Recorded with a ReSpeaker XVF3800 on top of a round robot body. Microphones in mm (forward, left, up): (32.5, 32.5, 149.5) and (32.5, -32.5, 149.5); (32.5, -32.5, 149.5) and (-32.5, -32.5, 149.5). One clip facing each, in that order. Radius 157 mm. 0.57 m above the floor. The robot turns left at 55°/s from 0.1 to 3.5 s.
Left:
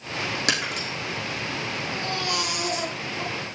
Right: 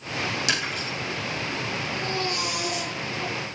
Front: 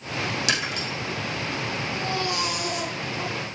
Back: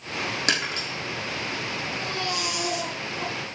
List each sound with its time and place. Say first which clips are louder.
0.5 s breaking glass: left 1 dB, even; 130° left, 4 m; by 0.9 s 110° left, 4 m
1.9 s a baby crying: left 1 dB, front 3 dB; 95° left, 3.5 m; by 3.3 s 20° left, 3.5 m